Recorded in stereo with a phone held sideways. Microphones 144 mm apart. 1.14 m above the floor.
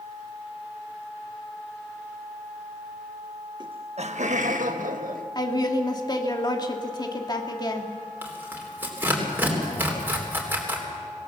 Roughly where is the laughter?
Right.